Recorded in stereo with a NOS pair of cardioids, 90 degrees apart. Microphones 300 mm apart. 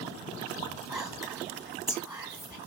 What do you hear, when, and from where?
0.9 s whispering: 10° right, 1.2 m